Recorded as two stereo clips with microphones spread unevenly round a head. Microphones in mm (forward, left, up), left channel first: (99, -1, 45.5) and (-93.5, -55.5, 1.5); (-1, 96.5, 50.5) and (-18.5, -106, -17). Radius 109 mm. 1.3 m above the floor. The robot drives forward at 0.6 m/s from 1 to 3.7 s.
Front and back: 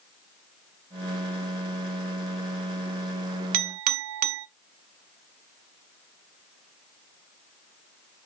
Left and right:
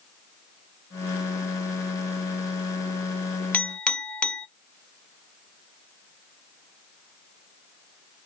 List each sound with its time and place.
3.5 s a clink: 160° left, 0.5 m